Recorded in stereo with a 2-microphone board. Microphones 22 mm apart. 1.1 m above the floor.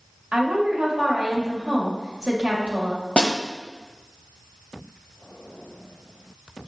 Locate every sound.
0.3 s a woman speaking: 85° right, 1.9 m
3.2 s a snare drum: 60° left (ahead or behind), 1.1 m